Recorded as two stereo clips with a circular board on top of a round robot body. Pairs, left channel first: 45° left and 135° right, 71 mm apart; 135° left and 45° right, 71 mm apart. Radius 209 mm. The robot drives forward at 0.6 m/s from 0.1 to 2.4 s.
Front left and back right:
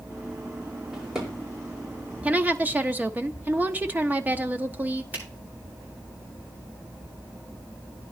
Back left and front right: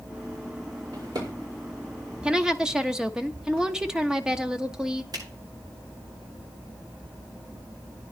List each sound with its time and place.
0.9 s a drawer: 50° right, 5 m; by 1.3 s 55° right, 5 m
2.2 s a woman speaking: 100° right, 1.1 m; by 5.0 s 110° right, 1.1 m
5.1 s a finger snap: 70° right, 8.5 m